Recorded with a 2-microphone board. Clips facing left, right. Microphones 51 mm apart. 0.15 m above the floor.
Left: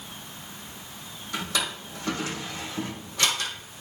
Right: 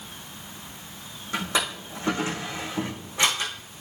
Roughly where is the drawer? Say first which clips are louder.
Right 3 dB; right.